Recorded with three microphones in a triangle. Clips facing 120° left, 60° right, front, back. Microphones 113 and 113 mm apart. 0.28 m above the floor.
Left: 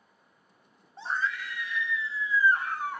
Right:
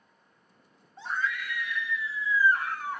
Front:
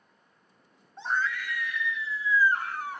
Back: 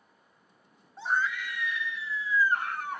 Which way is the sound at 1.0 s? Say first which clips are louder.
Even, even; 100° left.